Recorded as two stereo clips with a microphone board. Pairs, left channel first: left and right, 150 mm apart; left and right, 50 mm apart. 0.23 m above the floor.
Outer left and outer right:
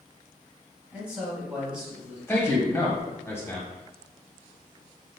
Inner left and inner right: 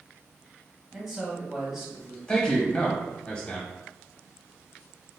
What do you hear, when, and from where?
0.9 s a man speaking: 10° right (ahead or behind), 1.2 m
2.3 s a man speaking: 15° left (ahead or behind), 0.9 m